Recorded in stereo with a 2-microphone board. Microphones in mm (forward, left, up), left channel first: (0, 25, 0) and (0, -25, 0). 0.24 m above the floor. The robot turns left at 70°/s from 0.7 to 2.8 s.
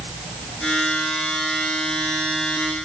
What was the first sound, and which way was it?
Only background noise.